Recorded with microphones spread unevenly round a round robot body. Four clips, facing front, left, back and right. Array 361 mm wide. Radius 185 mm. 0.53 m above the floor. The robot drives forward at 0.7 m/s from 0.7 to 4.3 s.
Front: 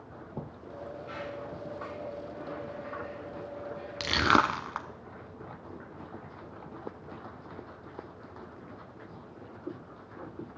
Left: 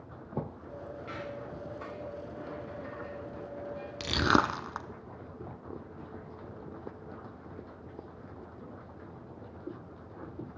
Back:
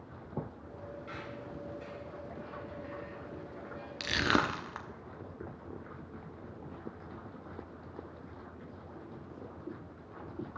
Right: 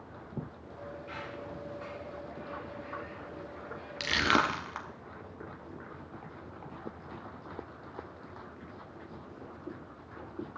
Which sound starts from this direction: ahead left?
Crushing, at 4.0 s.